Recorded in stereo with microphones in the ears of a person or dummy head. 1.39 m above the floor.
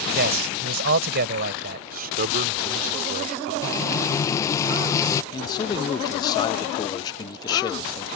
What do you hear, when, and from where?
0.1 s a man speaking: 60° right (ahead or behind)
1.9 s a man speaking: 45° right (ahead or behind)
3.6 s frying: 20° left (ahead or behind)
5.3 s a man speaking: 20° left (ahead or behind)